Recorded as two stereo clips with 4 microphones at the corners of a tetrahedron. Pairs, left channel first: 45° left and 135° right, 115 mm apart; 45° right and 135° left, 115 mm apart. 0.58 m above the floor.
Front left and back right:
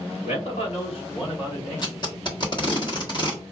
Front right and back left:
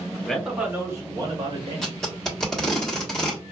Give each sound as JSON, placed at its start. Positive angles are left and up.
{"t": 0.2, "sound": "a man speaking", "azimuth_deg": 40, "distance_m": 1.2}
{"t": 1.8, "sound": "tape being pulled", "azimuth_deg": 40, "distance_m": 1.3}